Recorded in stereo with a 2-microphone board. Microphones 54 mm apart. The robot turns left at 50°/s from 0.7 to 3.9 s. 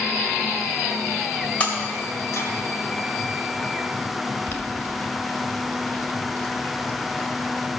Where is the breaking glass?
25° left (ahead or behind), 2.5 m; by 2.5 s 70° left (ahead or behind), 2.5 m.